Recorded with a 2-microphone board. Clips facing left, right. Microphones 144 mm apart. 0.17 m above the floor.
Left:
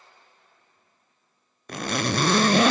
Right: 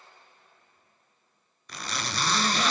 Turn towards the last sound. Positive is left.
turn(degrees=60)  # may be behind; listen again after turning